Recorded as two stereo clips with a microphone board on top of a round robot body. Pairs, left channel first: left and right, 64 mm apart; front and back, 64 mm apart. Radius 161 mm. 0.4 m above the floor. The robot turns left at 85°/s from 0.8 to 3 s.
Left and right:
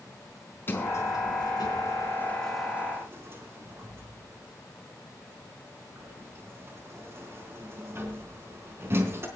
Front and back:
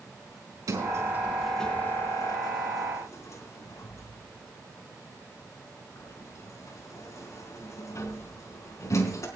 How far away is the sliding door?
About 4 m.